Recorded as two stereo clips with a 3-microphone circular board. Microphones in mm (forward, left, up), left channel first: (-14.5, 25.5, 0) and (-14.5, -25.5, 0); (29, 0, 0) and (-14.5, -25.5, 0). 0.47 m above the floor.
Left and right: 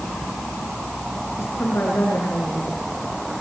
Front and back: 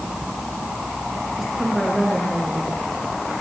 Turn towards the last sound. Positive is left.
turn(degrees=125)